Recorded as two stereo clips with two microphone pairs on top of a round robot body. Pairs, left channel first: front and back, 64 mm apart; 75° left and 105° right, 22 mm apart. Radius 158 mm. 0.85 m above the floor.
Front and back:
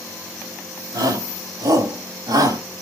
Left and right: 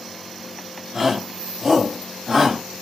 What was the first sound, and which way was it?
A shout, 175° left.